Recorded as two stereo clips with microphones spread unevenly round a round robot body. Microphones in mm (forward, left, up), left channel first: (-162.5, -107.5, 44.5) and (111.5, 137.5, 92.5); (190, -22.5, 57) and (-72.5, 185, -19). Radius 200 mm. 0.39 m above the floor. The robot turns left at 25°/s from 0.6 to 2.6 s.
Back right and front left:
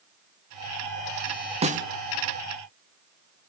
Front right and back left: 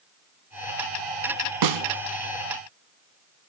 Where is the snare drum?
115° left, 1.2 m; by 1.9 s 110° left, 1.2 m.